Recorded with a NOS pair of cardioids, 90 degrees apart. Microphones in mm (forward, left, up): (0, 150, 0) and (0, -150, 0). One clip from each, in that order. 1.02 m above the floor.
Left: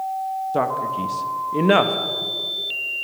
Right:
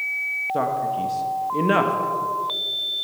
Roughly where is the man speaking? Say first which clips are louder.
Left 3 dB; ahead.